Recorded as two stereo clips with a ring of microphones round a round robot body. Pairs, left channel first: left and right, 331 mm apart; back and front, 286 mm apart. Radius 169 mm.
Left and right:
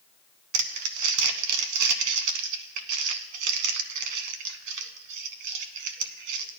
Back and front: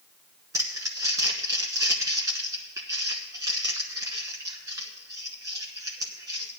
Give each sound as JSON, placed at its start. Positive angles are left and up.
{"t": 0.5, "sound": "crumpling", "azimuth_deg": -80, "distance_m": 0.9}